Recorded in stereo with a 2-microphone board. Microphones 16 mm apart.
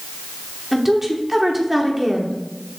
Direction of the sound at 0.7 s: 15° right (ahead or behind).